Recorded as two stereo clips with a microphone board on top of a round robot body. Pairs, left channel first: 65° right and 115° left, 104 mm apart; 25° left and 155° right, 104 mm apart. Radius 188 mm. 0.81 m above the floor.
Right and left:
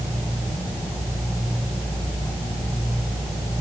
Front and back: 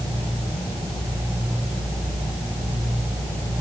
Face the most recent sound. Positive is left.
No sound to turn to.